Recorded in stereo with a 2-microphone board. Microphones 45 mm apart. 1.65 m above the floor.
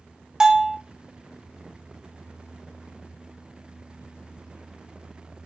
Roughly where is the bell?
Centre.